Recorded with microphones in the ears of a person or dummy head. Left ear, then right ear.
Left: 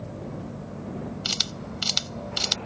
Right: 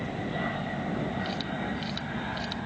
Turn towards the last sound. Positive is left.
turn(degrees=75)  # may be behind; listen again after turning